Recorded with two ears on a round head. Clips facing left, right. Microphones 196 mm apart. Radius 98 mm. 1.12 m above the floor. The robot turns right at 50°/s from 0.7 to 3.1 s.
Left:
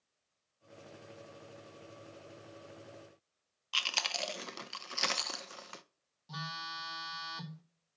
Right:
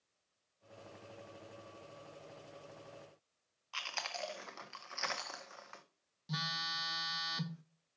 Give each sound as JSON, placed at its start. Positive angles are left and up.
{"t": 3.7, "sound": "chewing", "side_deg": 45, "distance_m": 0.6}
{"t": 6.3, "sound": "a phone buzzing", "side_deg": -25, "distance_m": 1.1}